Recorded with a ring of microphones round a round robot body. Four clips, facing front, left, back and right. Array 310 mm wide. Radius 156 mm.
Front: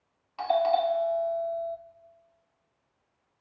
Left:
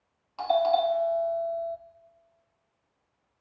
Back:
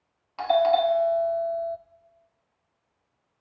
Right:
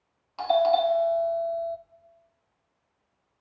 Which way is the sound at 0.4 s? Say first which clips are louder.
Right 2 dB, back 4 dB; 165° right.